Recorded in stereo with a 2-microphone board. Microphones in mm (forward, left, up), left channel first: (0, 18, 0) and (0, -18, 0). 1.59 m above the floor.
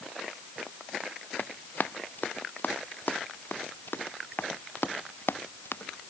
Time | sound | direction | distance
1.4 | running footsteps | 55° left (ahead or behind) | ?